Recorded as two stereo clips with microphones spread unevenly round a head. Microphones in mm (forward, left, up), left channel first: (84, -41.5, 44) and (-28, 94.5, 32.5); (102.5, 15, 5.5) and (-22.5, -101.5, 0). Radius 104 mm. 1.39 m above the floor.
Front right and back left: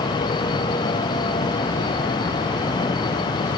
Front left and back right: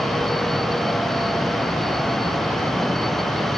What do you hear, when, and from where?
Only background noise.